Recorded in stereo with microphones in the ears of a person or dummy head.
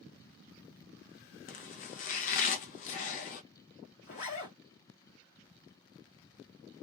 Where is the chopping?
40° left (ahead or behind), 0.6 m.